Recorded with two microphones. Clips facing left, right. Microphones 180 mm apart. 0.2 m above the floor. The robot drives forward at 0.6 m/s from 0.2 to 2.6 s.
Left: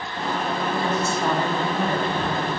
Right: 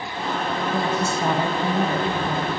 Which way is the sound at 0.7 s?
25° right (ahead or behind).